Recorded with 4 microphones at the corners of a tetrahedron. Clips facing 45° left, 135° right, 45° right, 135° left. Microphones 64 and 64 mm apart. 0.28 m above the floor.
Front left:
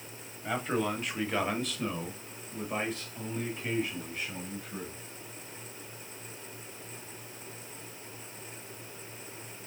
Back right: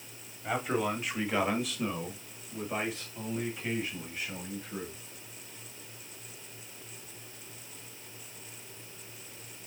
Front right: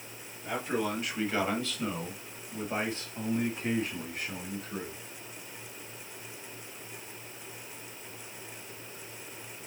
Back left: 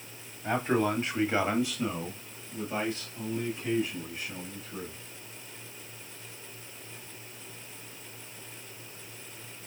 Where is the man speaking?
140° left, 1.6 m; by 5.0 s 45° right, 2 m.